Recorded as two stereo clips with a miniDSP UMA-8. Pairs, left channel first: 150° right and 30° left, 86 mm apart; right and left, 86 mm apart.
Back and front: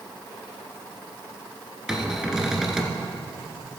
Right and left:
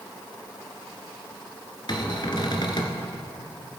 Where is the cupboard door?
55° right, 1.6 m.